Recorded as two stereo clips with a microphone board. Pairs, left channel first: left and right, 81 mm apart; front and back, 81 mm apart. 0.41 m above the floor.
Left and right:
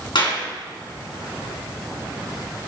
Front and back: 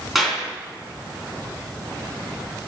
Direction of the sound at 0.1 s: 90° left.